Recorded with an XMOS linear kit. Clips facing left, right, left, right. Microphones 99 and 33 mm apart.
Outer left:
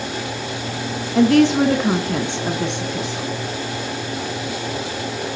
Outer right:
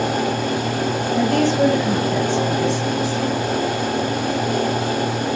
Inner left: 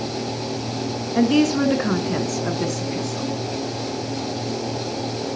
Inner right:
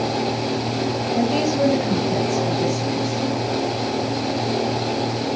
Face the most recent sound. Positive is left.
turn(degrees=70)  # may be behind; listen again after turning